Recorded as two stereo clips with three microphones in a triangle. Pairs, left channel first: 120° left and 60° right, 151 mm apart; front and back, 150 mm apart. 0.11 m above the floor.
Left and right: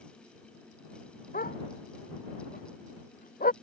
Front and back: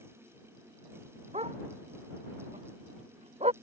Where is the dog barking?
135° left.